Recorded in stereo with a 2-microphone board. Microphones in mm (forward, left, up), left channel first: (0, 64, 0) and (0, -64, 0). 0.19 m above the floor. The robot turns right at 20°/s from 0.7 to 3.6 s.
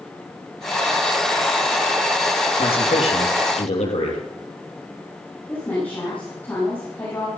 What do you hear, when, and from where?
2.6 s a man speaking: 50° left (ahead or behind), 5.5 m; by 4.2 s 70° left (ahead or behind), 5.5 m
5.5 s a woman speaking: 15° left (ahead or behind), 8 m